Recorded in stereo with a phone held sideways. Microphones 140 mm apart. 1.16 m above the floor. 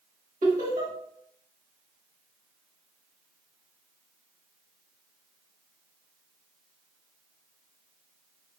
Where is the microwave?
I don't hear a microwave.